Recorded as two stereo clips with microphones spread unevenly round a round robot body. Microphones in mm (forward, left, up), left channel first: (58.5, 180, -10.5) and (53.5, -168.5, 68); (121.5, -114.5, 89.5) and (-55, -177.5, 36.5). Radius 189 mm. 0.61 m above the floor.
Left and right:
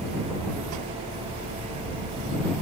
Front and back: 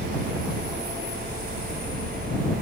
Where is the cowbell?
No cowbell in this recording.